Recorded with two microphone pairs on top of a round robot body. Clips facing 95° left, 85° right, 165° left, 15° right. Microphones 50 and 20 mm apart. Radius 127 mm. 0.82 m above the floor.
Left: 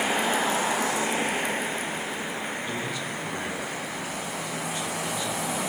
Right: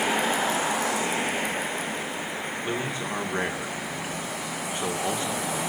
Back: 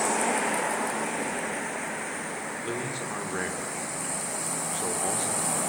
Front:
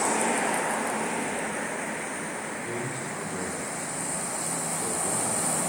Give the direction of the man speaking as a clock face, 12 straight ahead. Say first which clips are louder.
Right 2 dB, even; 5 o'clock.